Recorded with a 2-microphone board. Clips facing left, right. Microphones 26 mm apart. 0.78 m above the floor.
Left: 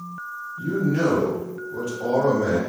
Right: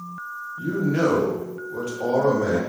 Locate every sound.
0.6 s a man speaking: 40° right (ahead or behind), 0.9 m; by 2.6 s 20° right (ahead or behind), 1.1 m